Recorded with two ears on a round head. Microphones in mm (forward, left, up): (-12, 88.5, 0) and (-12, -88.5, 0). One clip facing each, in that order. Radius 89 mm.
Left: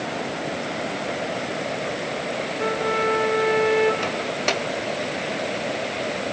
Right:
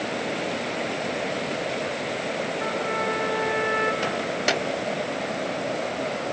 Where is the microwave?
5° right (ahead or behind), 0.7 m.